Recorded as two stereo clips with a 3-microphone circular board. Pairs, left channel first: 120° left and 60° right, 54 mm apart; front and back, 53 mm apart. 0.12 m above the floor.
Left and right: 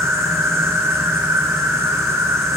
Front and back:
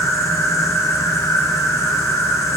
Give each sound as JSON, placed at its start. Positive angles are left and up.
{"t": 0.0, "sound": "an insect", "azimuth_deg": -30, "distance_m": 5.5}